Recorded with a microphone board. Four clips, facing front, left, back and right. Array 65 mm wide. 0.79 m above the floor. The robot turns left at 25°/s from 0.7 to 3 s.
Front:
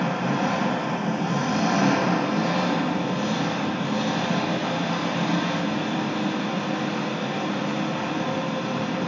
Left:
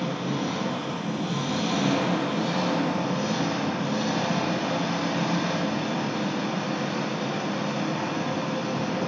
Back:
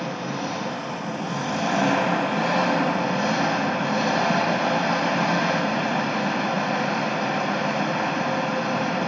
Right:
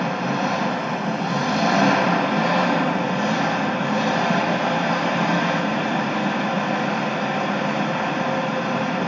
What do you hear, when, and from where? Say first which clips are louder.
0.0 s an engine running: right 6 dB, front 4 dB; 75° right, 1.5 m; by 9.1 s 135° right, 1.5 m